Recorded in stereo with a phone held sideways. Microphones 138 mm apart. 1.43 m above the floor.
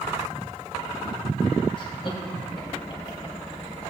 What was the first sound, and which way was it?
Laughter, 40° left (ahead or behind).